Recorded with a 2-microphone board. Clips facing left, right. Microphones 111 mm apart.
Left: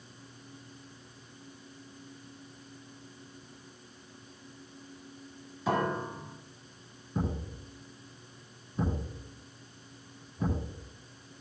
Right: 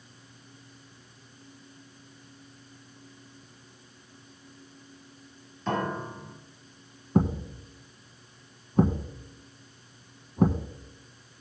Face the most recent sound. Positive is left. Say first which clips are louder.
# right 9 dB
turn(degrees=-60)  # may be behind; listen again after turning